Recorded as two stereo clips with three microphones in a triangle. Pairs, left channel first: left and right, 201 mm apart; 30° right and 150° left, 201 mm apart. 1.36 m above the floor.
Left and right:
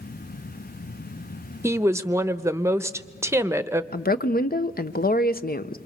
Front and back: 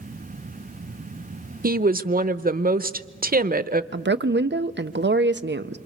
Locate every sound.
1.6 s a woman speaking: 165° right, 0.8 m
3.9 s a woman speaking: 130° left, 0.9 m